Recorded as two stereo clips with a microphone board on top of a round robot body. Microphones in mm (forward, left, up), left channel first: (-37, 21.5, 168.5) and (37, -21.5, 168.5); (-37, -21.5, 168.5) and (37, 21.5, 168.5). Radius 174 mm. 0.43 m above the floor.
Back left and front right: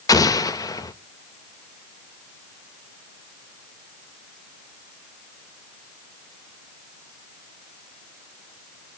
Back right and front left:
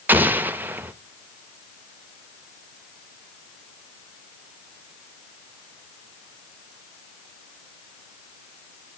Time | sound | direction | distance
0.1 | an explosion | 100° left | 0.6 m